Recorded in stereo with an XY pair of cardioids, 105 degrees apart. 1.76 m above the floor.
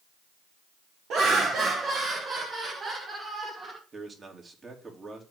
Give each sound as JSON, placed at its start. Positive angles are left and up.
{"t": 1.1, "sound": "laughter", "azimuth_deg": -70, "distance_m": 1.4}
{"t": 3.9, "sound": "a man speaking", "azimuth_deg": -35, "distance_m": 3.0}